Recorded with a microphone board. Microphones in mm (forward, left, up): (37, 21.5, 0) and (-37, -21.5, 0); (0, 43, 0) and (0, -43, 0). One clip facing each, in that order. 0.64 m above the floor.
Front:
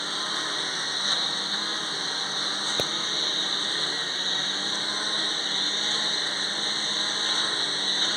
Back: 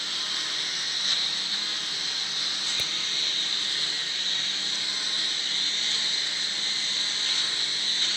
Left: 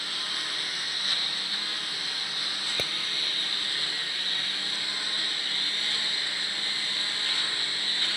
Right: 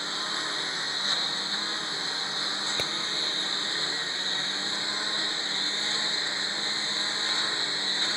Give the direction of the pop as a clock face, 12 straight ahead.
12 o'clock.